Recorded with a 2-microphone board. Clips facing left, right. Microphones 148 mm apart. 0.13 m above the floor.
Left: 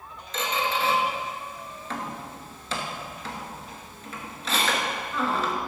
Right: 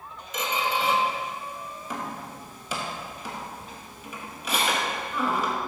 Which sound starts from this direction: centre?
A squeak, at 0.3 s.